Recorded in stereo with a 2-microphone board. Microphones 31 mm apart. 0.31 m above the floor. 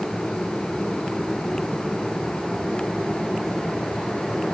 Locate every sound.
Only background noise.